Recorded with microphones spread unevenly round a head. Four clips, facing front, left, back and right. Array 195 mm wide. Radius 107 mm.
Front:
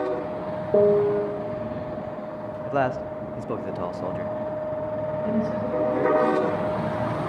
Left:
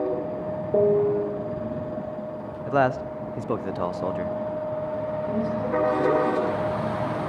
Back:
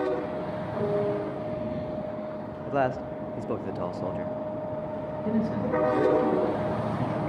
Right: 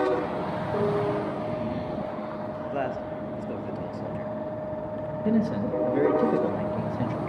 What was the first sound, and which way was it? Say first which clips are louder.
A piano: left 7 dB, front 9 dB; 25° left.